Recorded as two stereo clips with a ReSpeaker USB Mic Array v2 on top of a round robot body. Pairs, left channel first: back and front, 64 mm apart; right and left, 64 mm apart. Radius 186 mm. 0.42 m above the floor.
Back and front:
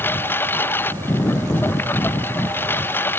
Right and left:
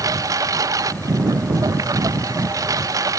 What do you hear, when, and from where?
0.0 s a lawn mower: 120° left